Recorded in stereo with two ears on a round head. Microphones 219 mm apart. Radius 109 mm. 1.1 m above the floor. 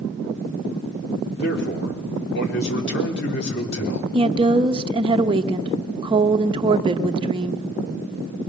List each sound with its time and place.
1.4 s a man speaking: 50° left (ahead or behind), 3.5 m
4.1 s a woman speaking: 25° right (ahead or behind), 0.9 m